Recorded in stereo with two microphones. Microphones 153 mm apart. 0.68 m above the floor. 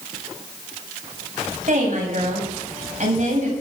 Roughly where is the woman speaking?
Right.